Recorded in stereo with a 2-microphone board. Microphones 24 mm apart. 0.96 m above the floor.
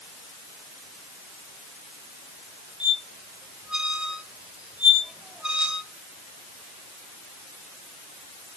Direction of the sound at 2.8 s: 50° right (ahead or behind).